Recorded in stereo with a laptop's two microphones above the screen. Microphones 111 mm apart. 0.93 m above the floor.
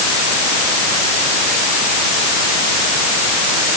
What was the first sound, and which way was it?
Only background noise.